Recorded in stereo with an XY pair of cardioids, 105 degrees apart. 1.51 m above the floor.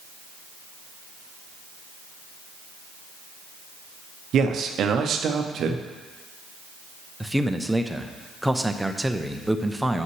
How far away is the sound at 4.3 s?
About 0.7 m.